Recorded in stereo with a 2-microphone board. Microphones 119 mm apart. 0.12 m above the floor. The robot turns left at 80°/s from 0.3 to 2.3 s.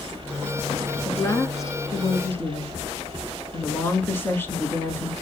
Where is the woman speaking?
15° left (ahead or behind), 1.6 m; by 5.1 s 20° left (ahead or behind), 1.6 m.